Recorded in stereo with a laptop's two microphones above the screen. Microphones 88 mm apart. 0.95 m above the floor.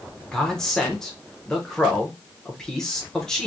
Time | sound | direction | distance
0.3 | a man speaking | 5° left (ahead or behind) | 0.9 m